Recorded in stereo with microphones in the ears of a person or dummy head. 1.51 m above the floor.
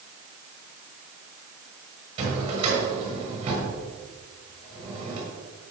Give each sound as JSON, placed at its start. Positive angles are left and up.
{"t": 2.2, "sound": "a drawer", "side_deg": -30, "distance_m": 7.0}